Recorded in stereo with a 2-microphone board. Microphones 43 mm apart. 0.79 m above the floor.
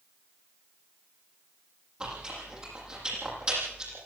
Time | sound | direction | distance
2.0 | chewing | 20° right (ahead or behind) | 8.5 m